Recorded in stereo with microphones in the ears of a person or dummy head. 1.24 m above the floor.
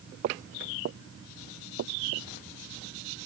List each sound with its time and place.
0.2 s footsteps: 45° right (ahead or behind); by 2.3 s 65° right (ahead or behind)